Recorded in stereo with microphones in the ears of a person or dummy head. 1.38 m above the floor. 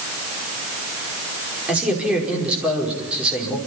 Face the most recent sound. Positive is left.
turn(degrees=-5)  # may be behind; listen again after turning